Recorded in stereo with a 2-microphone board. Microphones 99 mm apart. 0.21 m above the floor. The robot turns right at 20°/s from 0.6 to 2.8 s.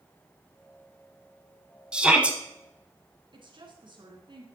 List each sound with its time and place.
1.9 s a shout: 10° right (ahead or behind), 1.0 m; by 2.4 s 15° right (ahead or behind), 1.0 m
3.3 s a woman speaking: 55° right (ahead or behind), 2.5 m